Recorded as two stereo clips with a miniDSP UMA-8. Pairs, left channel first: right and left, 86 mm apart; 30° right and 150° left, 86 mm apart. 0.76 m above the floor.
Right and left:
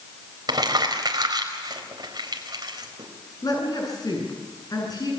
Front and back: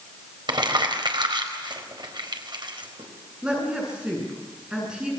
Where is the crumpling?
125° left, 4 m.